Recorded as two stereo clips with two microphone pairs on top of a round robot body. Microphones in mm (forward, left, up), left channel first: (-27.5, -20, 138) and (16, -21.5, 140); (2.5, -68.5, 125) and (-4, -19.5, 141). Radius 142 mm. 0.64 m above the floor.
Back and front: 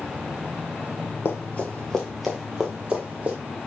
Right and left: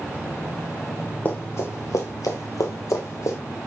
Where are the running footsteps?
150° right, 0.9 m; by 3.4 s 60° right, 1.5 m.